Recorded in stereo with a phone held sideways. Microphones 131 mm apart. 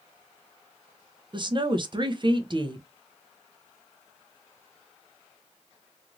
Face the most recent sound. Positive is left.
turn(degrees=-40)  # may be behind; listen again after turning